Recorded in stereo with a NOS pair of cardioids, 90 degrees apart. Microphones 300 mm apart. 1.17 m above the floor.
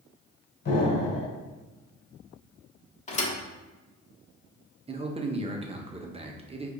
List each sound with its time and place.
0.7 s an explosion: 40° left, 1.9 m
3.1 s a thud: 25° left, 1.4 m
4.9 s a man speaking: 20° right, 0.8 m